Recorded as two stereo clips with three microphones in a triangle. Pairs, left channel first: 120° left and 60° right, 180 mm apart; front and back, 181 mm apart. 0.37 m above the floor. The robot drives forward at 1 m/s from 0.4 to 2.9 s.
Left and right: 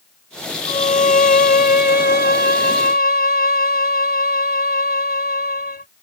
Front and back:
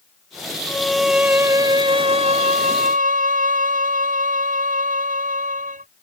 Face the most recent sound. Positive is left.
turn(degrees=145)